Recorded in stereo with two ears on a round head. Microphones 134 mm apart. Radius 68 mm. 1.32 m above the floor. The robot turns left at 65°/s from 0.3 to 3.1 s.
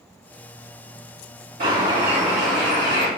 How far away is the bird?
About 2.5 m.